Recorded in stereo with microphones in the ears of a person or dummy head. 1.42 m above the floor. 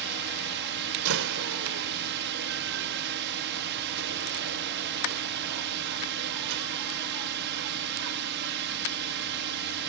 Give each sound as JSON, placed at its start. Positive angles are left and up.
{"t": 0.0, "sound": "a drone", "side_deg": -60}
{"t": 1.1, "sound": "a door slam", "side_deg": -70}